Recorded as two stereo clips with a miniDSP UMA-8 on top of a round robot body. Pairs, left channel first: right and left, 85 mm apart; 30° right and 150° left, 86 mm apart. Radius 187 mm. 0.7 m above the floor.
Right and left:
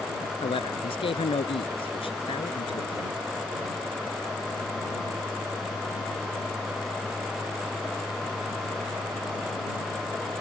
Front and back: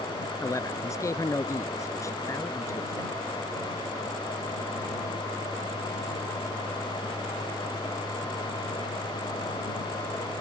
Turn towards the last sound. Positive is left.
turn(degrees=-85)